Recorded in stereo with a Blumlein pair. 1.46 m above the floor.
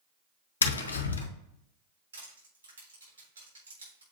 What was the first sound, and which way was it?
Tapping, 70° left.